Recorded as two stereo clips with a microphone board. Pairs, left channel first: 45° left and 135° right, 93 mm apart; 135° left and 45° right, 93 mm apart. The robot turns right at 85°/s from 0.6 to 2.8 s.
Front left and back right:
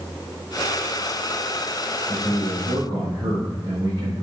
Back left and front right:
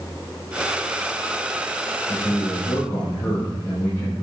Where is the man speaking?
135° left, 4 m; by 4.2 s 165° right, 4 m.